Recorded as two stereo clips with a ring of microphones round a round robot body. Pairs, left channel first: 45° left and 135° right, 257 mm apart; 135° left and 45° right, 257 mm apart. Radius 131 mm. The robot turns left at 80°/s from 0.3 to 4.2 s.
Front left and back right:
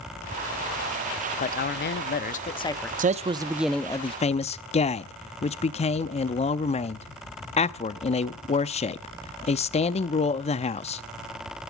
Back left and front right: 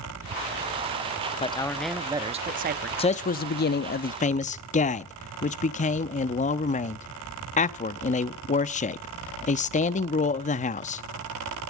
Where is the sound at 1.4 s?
85° left, 0.7 m; by 2.9 s 35° right, 0.7 m.